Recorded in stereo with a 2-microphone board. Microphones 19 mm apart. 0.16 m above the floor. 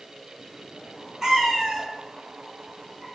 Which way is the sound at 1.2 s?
35° right (ahead or behind).